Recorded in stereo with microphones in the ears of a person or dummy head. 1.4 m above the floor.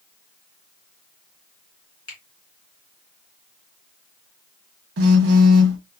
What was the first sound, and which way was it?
A finger snap, 30° left (ahead or behind).